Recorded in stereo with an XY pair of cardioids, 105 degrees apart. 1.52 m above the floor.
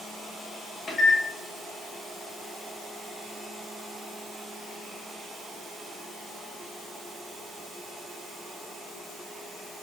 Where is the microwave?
25° left, 1.5 m.